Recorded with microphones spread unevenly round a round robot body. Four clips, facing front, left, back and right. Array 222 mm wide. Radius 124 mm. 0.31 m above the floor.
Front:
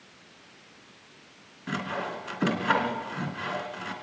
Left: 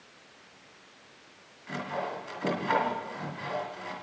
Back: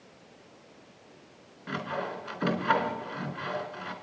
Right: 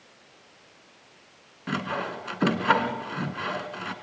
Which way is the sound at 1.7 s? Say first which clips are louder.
Right 4 dB, front 1 dB; 70° right.